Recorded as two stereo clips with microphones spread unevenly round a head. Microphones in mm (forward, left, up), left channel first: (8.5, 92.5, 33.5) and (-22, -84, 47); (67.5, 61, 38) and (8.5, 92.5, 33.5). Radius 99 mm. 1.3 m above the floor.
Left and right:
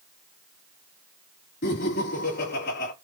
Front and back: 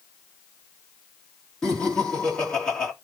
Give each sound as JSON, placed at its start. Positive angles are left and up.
{"t": 1.6, "sound": "laughter", "azimuth_deg": 45, "distance_m": 1.8}